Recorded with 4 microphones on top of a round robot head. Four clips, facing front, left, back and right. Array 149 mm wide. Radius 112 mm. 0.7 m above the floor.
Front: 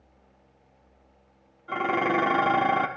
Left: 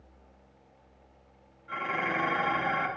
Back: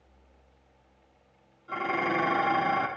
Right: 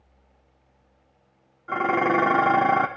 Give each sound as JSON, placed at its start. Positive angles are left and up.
{"t": 1.7, "sound": "dishes clattering", "azimuth_deg": -70, "distance_m": 1.0}